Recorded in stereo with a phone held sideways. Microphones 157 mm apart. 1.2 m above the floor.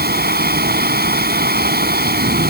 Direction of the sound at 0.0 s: 80° right.